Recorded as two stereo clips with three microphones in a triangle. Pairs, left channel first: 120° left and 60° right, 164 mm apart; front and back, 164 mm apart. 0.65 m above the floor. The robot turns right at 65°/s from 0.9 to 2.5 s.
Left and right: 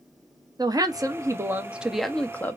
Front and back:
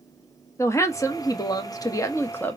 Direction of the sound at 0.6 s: 45° right.